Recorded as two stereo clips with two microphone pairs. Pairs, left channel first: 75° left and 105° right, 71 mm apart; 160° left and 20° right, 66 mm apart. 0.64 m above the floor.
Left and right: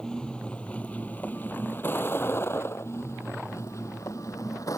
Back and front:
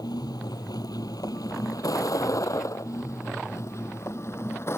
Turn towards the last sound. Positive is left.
turn(degrees=110)